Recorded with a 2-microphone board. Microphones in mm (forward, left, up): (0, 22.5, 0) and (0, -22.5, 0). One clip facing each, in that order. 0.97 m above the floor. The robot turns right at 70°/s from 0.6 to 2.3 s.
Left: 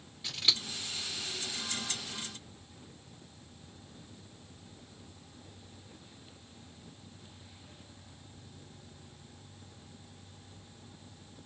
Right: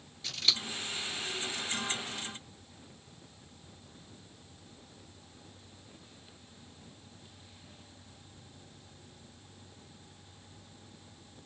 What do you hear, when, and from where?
0.2 s scissors: 10° left (ahead or behind), 2 m